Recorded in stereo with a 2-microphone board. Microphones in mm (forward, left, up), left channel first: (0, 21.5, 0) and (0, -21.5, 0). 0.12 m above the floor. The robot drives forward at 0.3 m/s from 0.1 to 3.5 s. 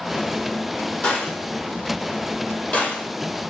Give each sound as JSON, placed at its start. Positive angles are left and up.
{"t": 1.0, "sound": "a gunshot", "side_deg": 35, "distance_m": 2.0}